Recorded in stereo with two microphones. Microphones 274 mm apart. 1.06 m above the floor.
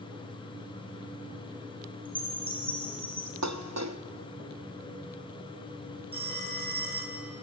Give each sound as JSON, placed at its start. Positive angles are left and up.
{"t": 2.0, "sound": "a chime", "side_deg": 5, "distance_m": 3.5}
{"t": 3.4, "sound": "dishes clattering", "side_deg": -75, "distance_m": 0.7}
{"t": 6.1, "sound": "a phone ringing", "side_deg": 50, "distance_m": 3.0}